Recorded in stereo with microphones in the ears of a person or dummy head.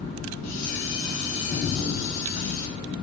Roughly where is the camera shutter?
Left.